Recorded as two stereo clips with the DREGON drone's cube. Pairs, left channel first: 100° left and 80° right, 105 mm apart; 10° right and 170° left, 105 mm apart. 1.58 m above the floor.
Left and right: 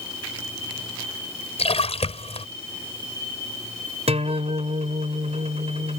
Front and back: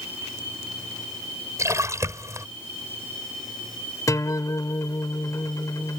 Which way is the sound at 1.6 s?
110° left.